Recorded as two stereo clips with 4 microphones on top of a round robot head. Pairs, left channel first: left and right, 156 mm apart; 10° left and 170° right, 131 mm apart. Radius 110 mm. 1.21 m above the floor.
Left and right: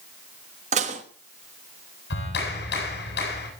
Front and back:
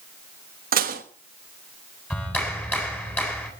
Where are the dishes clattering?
145° right, 1.2 m.